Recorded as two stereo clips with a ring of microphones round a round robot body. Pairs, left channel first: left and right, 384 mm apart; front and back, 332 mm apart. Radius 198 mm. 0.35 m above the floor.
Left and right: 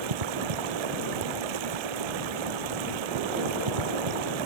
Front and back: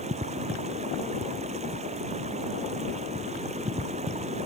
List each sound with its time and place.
0.0 s running water: 105° right